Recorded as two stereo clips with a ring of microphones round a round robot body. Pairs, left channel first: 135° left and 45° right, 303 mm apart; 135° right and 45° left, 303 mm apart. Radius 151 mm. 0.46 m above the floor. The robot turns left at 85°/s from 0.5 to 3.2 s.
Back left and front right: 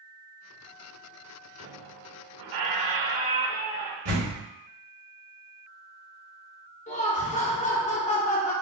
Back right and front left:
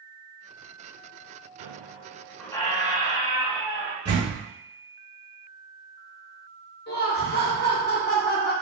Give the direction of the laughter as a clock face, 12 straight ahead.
6 o'clock.